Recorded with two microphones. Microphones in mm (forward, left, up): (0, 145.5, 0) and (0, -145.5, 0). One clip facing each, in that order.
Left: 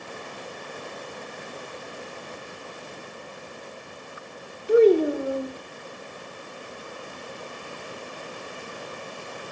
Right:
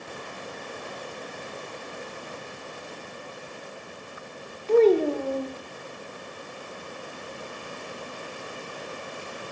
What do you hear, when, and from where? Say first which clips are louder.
4.7 s a child speaking: left 2 dB; 15° left (ahead or behind), 1.0 m